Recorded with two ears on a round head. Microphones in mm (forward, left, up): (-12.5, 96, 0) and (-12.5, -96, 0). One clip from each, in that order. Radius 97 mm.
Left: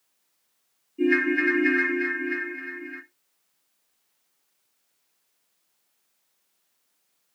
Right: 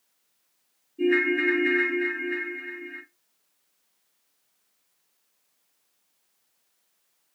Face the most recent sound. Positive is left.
turn(degrees=65)  # may be behind; listen again after turning